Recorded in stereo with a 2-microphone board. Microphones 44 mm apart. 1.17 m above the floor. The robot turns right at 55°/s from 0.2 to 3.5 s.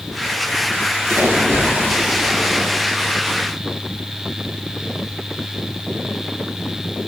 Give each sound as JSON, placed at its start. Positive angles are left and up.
{"t": 1.1, "sound": "a splash", "azimuth_deg": -85, "distance_m": 4.0}